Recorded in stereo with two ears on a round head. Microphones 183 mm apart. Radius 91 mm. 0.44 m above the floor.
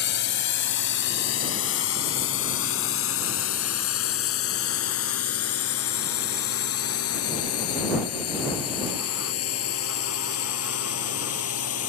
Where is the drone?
55° left (ahead or behind); by 11.9 s 85° left.